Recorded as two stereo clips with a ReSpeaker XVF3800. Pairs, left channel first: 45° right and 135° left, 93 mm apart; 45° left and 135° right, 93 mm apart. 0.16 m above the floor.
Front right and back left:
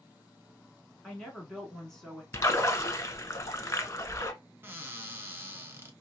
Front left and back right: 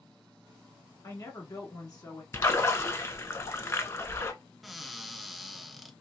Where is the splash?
5° right, 0.6 m.